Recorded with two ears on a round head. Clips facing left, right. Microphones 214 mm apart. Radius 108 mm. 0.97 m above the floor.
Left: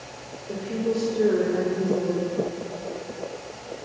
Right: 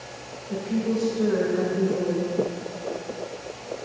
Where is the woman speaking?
80° left, 3 m.